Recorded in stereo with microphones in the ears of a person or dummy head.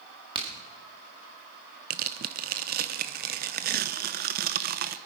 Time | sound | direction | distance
0.3 | a crack | 25° right (ahead or behind) | 1.8 m
1.9 | tearing paper | 50° right (ahead or behind) | 0.5 m